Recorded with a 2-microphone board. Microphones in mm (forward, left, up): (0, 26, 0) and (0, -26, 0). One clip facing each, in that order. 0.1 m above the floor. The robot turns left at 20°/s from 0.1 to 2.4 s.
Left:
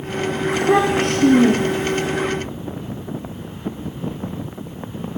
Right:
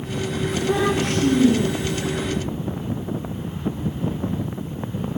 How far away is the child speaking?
About 8.5 m.